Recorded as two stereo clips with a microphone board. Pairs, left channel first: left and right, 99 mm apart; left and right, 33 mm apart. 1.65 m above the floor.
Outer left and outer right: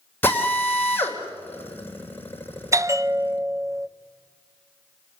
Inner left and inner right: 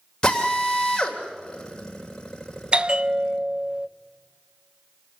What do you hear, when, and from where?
0.2 s a drill: 20° left (ahead or behind), 3.5 m
2.7 s a bell: 30° right (ahead or behind), 0.5 m